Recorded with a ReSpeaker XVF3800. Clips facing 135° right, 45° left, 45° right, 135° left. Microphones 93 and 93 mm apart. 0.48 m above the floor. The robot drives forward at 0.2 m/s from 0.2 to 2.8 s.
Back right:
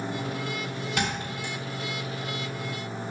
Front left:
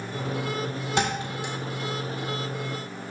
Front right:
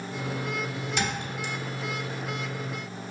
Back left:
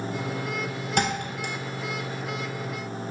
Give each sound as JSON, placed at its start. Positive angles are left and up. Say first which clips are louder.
{"t": 1.0, "sound": "a thud", "louder": "front left 5 dB, back left 6 dB", "azimuth_deg": 105, "distance_m": 1.2}